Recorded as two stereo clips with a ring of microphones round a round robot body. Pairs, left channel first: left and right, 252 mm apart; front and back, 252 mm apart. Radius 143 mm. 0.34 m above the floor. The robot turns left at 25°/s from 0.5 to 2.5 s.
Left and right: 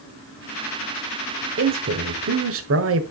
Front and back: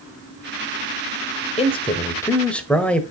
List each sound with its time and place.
1.6 s a man speaking: 60° right, 1.5 m; by 3.0 s 85° right, 1.5 m